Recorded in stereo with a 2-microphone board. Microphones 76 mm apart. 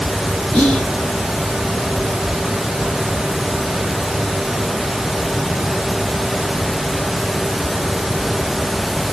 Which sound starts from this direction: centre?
Whispering, at 0.5 s.